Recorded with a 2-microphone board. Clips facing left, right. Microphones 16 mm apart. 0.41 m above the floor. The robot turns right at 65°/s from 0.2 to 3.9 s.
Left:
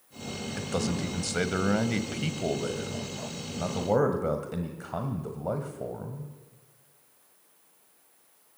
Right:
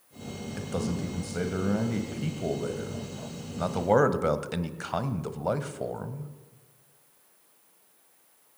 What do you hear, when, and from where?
0.6 s a man speaking: 20° left, 1.7 m; by 6.3 s 120° right, 1.7 m